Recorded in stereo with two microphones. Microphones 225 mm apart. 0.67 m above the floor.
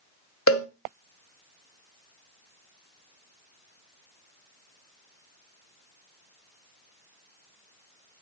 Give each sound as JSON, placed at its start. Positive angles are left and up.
{"t": 0.5, "sound": "a cowbell", "side_deg": 85, "distance_m": 0.8}